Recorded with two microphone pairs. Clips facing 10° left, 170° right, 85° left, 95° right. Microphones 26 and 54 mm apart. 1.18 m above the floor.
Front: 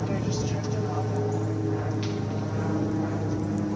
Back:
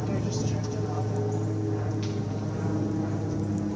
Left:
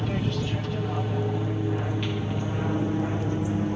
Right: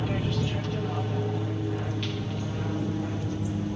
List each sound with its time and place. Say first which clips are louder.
0.0 s an aircraft: front 1 dB, left 1 dB; 15° right; by 3.8 s 60° left